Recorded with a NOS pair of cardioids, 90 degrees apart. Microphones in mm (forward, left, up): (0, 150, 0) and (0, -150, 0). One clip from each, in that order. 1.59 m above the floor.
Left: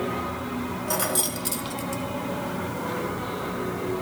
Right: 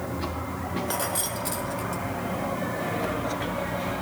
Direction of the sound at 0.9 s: 30° left.